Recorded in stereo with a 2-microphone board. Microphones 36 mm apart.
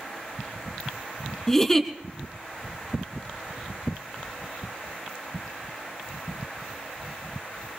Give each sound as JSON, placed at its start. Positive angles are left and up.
{"t": 1.5, "sound": "a giggle", "side_deg": 10, "distance_m": 1.2}